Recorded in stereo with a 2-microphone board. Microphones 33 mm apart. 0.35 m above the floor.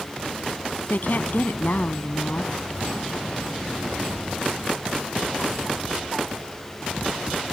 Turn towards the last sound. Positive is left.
turn(degrees=65)  # may be behind; listen again after turning